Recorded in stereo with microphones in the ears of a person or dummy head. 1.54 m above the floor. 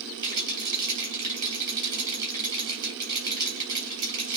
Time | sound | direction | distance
0.2 | a rattle | 25° right (ahead or behind) | 5.5 m